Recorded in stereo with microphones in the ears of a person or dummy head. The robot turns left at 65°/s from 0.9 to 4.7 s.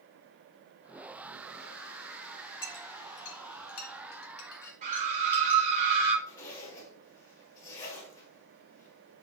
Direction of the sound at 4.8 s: 45° right (ahead or behind).